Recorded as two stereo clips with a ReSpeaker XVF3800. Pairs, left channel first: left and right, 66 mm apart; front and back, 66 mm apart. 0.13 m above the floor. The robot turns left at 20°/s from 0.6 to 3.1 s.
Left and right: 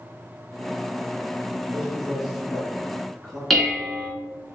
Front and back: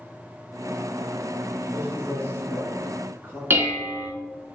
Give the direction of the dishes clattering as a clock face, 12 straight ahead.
6 o'clock.